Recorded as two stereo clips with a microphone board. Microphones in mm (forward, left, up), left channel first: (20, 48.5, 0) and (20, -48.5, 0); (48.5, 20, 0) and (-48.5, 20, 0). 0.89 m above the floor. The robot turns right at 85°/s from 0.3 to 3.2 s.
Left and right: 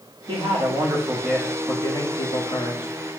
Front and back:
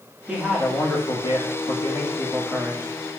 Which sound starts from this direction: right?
A man speaking, at 0.3 s.